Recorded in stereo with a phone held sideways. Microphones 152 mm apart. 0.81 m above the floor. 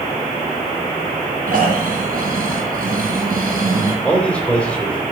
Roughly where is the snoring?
Right.